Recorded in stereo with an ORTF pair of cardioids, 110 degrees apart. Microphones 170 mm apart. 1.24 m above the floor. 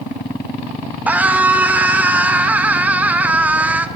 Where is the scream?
10° right, 1.3 m.